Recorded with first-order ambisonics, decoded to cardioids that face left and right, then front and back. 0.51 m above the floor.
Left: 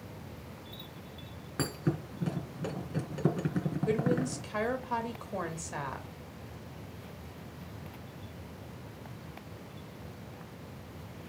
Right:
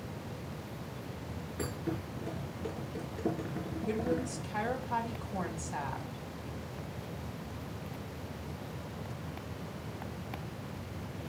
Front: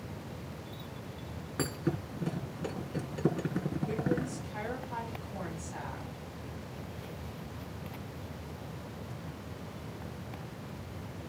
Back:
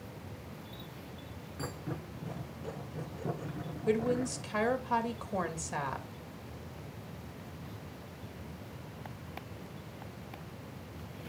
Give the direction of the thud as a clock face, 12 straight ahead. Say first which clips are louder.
Left 4 dB, front 7 dB; 10 o'clock.